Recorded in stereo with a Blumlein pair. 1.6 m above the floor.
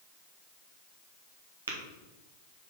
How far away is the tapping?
About 1.7 m.